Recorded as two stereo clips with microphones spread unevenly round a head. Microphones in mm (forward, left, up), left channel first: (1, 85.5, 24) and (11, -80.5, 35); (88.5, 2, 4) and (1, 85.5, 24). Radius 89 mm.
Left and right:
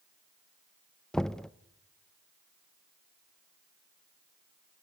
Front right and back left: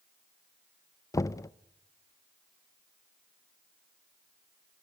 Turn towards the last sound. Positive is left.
turn(degrees=10)